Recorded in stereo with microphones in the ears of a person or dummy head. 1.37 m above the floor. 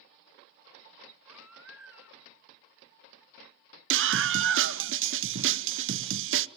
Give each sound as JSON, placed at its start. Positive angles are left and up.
{"t": 1.3, "sound": "a baby crying", "side_deg": -15, "distance_m": 2.5}
{"t": 3.9, "sound": "a scream", "side_deg": -65, "distance_m": 0.9}